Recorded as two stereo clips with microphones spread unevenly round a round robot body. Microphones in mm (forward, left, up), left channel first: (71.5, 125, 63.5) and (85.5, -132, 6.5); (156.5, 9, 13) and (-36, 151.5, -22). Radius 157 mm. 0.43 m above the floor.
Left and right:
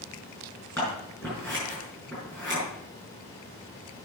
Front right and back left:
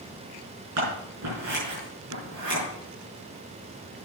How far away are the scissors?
About 6 m.